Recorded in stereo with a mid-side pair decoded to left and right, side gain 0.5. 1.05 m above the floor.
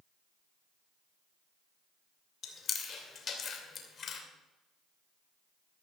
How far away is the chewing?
About 2.5 m.